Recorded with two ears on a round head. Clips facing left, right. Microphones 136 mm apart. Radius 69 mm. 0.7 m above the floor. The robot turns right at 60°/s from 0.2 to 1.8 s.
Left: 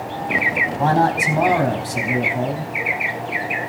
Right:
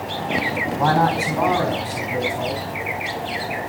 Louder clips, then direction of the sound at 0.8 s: Left 1 dB; 15° left.